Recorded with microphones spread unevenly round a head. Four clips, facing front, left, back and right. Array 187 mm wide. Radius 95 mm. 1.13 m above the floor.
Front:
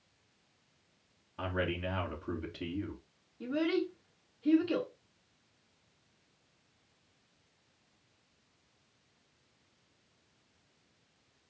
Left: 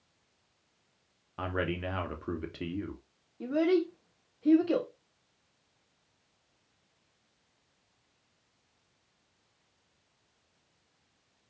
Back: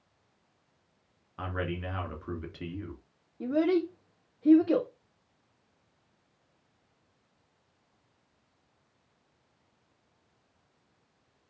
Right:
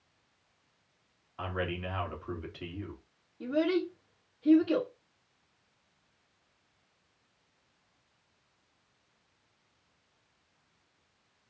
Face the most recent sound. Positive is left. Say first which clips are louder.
# left 2 dB, back 5 dB
turn(degrees=155)